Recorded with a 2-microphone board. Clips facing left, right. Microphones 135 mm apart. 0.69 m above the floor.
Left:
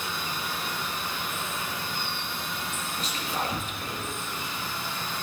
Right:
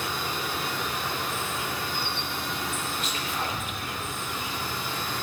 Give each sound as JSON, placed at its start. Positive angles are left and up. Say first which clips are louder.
{"t": 0.0, "sound": "an insect", "louder": "right 3 dB", "side_deg": -75, "distance_m": 1.1}
{"t": 3.0, "sound": "whispering", "louder": "even", "side_deg": 35, "distance_m": 1.5}